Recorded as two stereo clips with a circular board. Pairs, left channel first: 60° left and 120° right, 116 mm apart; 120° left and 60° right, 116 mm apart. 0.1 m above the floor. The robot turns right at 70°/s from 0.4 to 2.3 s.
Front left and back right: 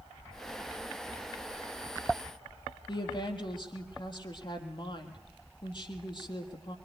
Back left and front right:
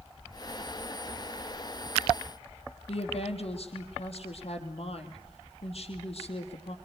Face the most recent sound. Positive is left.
turn(degrees=100)